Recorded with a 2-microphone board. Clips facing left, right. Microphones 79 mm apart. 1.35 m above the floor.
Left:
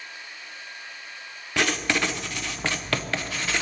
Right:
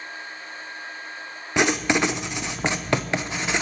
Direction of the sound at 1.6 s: 20° right (ahead or behind).